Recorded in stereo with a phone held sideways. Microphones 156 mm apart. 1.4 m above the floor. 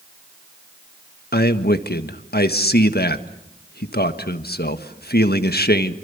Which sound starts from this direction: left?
A man speaking, at 1.3 s.